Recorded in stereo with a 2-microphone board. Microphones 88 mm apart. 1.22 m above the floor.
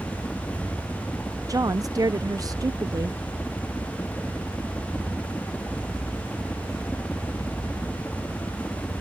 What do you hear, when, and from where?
0.0 s a helicopter: 20° left (ahead or behind)
1.5 s a woman speaking: 40° right (ahead or behind)